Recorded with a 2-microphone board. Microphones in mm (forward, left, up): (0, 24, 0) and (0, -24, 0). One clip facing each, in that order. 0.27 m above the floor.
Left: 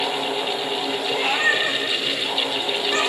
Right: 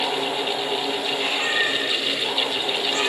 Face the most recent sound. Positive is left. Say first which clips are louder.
# left 6 dB
turn(degrees=40)  # may be behind; listen again after turning